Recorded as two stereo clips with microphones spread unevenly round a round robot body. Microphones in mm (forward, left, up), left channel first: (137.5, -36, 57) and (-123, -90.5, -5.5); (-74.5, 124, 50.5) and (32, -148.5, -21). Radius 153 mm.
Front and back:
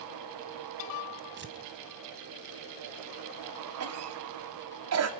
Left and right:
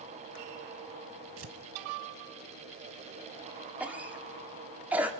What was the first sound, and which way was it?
Tearing paper, 115° right.